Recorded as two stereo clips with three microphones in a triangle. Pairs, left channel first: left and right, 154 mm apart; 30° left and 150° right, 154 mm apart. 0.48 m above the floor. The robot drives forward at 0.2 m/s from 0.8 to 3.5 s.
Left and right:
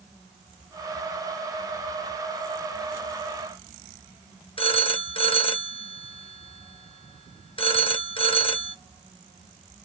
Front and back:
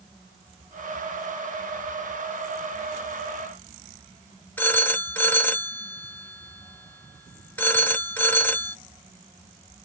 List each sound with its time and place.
4.6 s a phone ringing: 100° left, 0.6 m